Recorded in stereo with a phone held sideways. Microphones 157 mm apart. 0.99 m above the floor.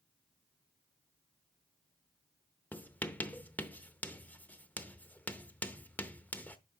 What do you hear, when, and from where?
2.7 s writing: 10° left (ahead or behind), 0.7 m